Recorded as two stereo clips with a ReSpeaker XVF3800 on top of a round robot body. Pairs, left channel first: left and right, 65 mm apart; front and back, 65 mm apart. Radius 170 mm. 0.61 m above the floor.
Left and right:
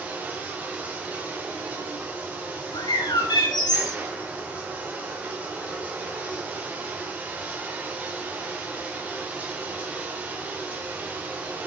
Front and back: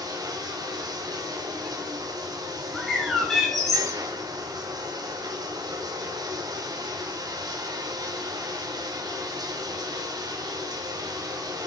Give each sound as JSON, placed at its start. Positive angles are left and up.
{"t": 0.0, "sound": "running water", "azimuth_deg": -160, "distance_m": 0.7}
{"t": 2.7, "sound": "a bird", "azimuth_deg": 85, "distance_m": 1.4}